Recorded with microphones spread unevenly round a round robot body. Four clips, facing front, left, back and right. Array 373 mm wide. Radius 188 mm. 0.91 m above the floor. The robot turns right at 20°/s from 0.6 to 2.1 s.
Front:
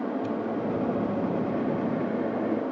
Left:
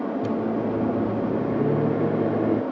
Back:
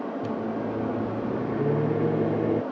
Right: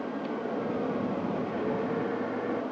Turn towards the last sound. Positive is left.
turn(degrees=135)